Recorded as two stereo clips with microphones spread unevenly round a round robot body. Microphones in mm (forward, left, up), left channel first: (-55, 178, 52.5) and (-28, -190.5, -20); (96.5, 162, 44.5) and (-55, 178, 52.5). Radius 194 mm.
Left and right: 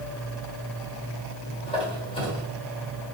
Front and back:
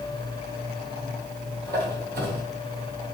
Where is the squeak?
175° left, 1.6 m.